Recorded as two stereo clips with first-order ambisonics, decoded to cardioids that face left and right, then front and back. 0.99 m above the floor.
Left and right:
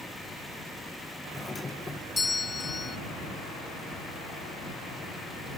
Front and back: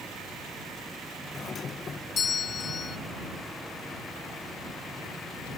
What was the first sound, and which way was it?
A doorbell, 30° left.